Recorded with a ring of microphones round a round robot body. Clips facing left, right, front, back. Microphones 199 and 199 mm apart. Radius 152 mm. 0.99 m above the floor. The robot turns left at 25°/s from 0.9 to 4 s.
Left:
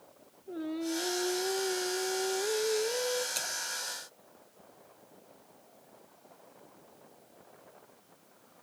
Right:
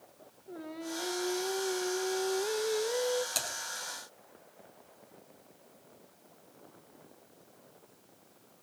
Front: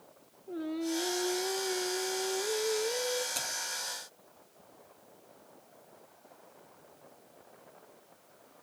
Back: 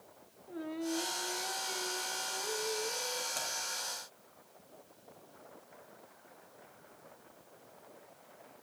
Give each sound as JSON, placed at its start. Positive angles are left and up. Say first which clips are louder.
{"t": 0.5, "sound": "singing", "louder": "left 6 dB, front 4 dB", "azimuth_deg": 40, "distance_m": 1.2}
{"t": 3.4, "sound": "typing on a keyboard", "louder": "right 2 dB, even", "azimuth_deg": -65, "distance_m": 4.5}